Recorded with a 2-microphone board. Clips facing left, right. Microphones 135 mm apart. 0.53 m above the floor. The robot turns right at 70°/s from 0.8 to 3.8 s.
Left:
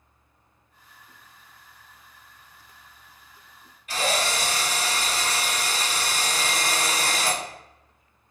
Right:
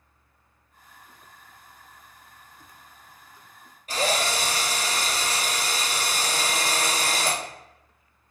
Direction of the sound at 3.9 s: 40° right (ahead or behind).